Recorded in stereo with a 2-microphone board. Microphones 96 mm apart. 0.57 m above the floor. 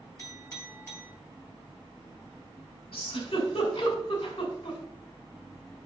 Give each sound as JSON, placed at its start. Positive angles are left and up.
{"t": 0.2, "sound": "a clink", "side_deg": 30, "distance_m": 2.0}
{"t": 2.9, "sound": "a giggle", "side_deg": 65, "distance_m": 2.0}